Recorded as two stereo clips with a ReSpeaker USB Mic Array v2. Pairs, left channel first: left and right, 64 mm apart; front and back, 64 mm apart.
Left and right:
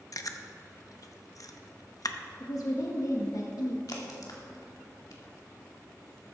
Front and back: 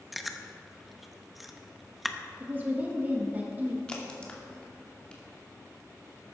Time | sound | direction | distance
0.1 | chewing | 90° left | 0.8 m
2.4 | a woman speaking | 115° left | 1.5 m
3.9 | a crack | 75° left | 2.5 m